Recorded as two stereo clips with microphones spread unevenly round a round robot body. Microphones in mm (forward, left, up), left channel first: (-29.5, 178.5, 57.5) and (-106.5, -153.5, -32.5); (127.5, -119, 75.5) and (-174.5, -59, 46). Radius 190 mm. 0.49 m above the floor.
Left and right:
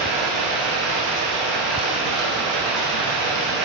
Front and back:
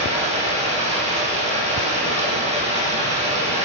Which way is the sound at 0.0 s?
120° right.